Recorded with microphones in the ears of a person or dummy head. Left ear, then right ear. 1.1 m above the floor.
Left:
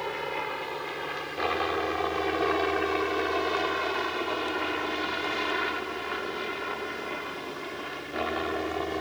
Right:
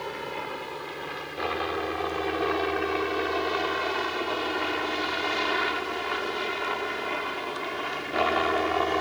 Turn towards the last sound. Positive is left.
turn(degrees=-35)  # may be behind; listen again after turning